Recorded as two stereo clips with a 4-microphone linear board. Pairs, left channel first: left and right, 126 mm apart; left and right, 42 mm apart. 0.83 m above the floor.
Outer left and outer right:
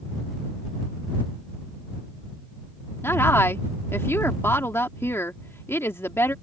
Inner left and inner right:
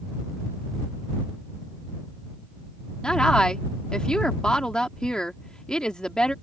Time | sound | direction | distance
3.0 | a woman speaking | 20° left (ahead or behind) | ?